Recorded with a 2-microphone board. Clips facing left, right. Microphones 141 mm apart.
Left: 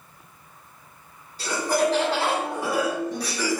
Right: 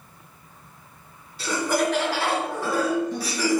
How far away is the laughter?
About 1.9 m.